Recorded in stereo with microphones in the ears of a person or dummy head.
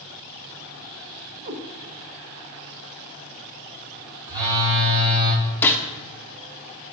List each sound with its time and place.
1.4 s a cat meowing: 40° right (ahead or behind), 0.8 m
4.3 s a phone buzzing: 25° right (ahead or behind), 2 m
5.6 s a gunshot: 15° left (ahead or behind), 0.7 m